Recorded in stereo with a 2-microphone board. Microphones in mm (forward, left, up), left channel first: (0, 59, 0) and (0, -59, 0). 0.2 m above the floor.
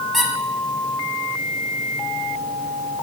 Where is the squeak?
Centre (ahead or behind), 1.1 m.